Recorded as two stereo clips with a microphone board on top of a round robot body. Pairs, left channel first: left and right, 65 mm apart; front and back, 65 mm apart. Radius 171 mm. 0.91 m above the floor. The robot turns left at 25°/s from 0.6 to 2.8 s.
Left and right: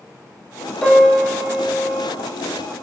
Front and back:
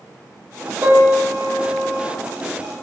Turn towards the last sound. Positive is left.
turn(degrees=110)